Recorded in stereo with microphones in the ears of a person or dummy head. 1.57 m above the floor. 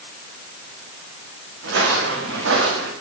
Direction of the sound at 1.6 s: 70° right (ahead or behind).